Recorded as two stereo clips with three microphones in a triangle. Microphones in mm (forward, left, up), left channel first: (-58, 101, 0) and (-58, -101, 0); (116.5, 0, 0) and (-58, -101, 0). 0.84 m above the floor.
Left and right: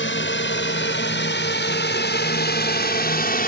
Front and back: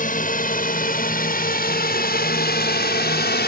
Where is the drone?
75° left; by 3.5 s 55° left.